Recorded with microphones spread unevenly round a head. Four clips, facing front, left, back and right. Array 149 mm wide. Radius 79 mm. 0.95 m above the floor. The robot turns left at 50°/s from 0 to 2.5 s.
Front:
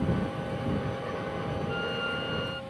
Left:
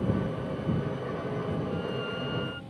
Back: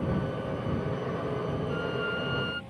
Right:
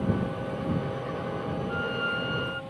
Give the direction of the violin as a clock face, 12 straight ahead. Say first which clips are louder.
Right 3 dB, back 1 dB; 3 o'clock.